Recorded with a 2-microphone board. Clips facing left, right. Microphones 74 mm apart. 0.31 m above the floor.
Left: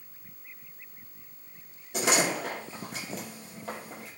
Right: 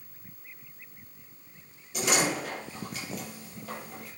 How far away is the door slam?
About 4 m.